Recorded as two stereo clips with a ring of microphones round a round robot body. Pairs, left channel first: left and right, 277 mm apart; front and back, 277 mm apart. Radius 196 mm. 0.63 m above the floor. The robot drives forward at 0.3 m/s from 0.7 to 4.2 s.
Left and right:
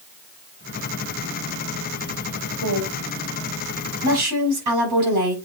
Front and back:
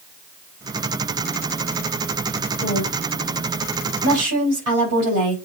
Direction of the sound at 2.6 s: 120° right.